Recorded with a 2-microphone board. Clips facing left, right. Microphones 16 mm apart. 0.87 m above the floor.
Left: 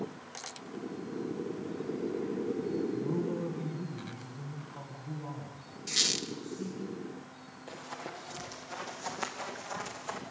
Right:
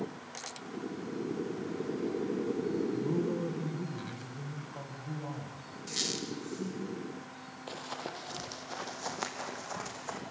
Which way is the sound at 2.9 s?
20° right (ahead or behind).